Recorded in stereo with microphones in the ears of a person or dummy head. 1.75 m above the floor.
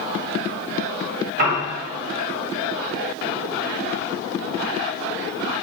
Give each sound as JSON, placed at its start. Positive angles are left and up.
{"t": 1.4, "sound": "a piano", "side_deg": -50, "distance_m": 1.3}